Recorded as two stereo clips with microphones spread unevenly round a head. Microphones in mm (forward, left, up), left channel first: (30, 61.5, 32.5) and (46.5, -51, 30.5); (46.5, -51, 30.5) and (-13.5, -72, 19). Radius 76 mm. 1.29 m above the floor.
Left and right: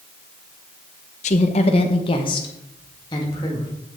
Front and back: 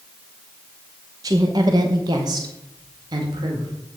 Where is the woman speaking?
140° left, 0.6 m; by 3.7 s 165° left, 2.0 m.